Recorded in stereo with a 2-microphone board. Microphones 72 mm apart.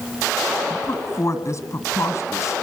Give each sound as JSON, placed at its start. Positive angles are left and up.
{"t": 0.7, "sound": "a woman speaking", "side_deg": 45, "distance_m": 2.0}